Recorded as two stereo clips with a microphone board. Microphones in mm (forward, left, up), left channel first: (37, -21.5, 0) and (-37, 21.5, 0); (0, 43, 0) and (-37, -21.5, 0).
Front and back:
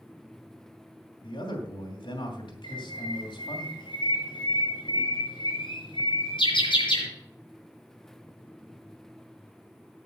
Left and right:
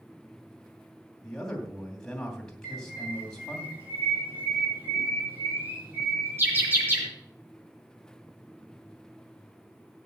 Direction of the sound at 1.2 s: 20° right.